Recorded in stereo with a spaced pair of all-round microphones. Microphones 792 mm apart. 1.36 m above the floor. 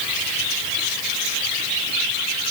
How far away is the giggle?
No giggle in this recording.